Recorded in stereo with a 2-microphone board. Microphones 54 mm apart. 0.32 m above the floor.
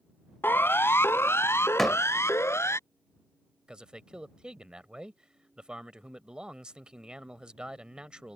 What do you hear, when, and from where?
0.4 s a siren: 40° left (ahead or behind); by 2.8 s 55° left (ahead or behind)
1.8 s a door slam: 5° left (ahead or behind)
3.7 s a man speaking: 15° right (ahead or behind)